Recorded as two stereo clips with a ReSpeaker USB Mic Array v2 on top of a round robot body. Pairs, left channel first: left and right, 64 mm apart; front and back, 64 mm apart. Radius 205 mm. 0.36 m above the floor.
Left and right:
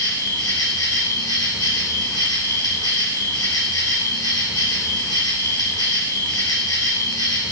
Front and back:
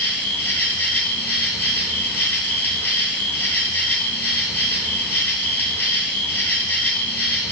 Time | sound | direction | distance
0.0 | an insect | 60° left | 3.5 m